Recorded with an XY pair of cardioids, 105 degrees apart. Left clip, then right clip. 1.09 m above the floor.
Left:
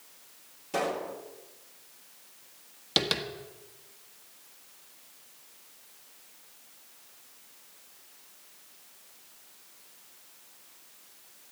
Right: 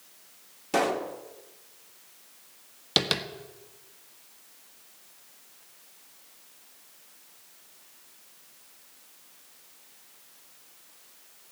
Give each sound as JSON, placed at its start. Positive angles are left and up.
{"t": 0.7, "sound": "a pop", "azimuth_deg": -55, "distance_m": 2.0}
{"t": 3.0, "sound": "tapping", "azimuth_deg": -20, "distance_m": 1.4}